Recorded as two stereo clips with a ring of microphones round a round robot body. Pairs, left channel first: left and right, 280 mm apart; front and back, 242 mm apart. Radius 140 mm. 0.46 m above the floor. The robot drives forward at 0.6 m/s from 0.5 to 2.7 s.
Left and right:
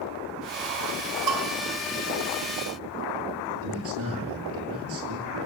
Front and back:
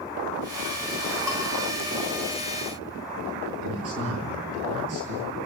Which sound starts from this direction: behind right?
A man speaking, at 3.5 s.